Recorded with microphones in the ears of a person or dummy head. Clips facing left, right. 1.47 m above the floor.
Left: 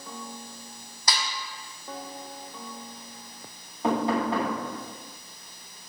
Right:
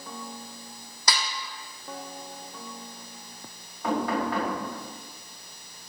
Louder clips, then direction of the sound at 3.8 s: Left 2 dB; 15° left (ahead or behind).